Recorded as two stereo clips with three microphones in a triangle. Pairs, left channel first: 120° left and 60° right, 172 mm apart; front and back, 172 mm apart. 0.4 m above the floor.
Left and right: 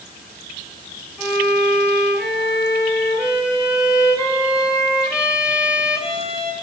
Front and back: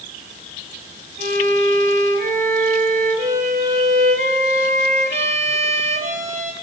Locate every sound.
1.2 s a violin: 145° right, 3 m